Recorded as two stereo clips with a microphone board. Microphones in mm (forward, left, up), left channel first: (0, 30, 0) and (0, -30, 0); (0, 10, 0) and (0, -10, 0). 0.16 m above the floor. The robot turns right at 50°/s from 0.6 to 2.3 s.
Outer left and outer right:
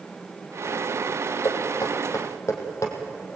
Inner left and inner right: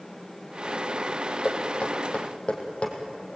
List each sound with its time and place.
1.4 s knocking: 75° left (ahead or behind), 4 m; by 2.9 s 50° left (ahead or behind), 4 m